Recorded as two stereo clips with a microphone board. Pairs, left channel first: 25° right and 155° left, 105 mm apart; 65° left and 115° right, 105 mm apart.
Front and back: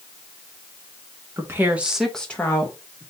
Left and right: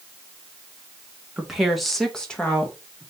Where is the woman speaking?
170° left, 0.9 m; by 3.1 s straight ahead, 1.1 m.